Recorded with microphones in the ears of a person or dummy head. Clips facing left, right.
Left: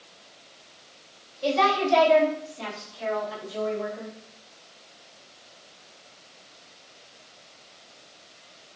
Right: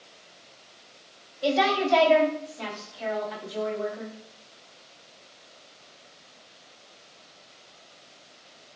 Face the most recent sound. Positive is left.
turn(degrees=5)  # may be behind; listen again after turning